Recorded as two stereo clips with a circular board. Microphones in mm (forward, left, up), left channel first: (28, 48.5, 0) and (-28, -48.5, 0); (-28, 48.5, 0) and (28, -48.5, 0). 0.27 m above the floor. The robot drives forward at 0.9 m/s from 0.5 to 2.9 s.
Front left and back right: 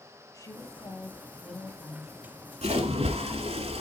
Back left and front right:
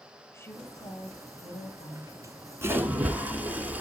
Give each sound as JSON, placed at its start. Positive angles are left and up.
{"t": 0.3, "sound": "a woman speaking", "azimuth_deg": 75, "distance_m": 1.2}
{"t": 2.6, "sound": "a splash", "azimuth_deg": -125, "distance_m": 1.1}